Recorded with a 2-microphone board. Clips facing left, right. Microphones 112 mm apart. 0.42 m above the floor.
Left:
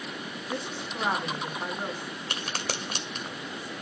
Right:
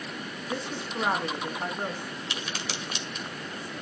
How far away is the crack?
About 1.8 m.